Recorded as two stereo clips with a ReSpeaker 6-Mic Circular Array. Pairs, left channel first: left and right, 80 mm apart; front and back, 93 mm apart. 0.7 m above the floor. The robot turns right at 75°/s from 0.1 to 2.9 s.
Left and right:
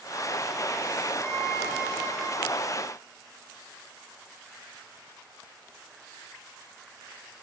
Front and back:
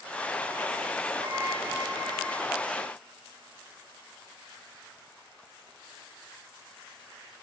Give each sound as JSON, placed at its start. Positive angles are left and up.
{"t": 1.2, "sound": "a violin", "azimuth_deg": 155, "distance_m": 8.5}